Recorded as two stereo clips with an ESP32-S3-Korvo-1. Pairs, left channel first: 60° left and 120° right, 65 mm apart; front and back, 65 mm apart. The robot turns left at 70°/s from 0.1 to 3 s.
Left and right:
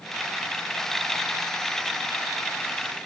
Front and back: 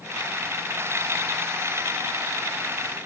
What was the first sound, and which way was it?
Only background noise.